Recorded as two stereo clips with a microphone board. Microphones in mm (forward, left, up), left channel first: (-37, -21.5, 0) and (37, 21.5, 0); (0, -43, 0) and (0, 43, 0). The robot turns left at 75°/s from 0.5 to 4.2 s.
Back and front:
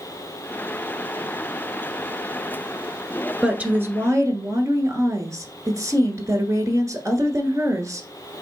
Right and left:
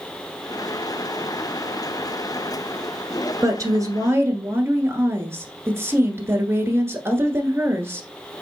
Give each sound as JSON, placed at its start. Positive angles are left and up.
{"t": 3.4, "sound": "a woman speaking", "azimuth_deg": 105, "distance_m": 1.3}